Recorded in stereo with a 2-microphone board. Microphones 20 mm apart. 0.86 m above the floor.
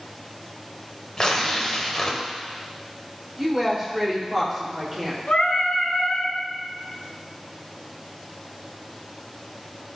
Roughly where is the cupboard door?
I don't hear a cupboard door.